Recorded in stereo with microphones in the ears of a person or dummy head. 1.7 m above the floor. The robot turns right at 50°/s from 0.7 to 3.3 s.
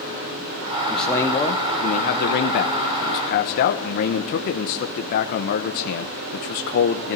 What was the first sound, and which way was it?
A man speaking, straight ahead.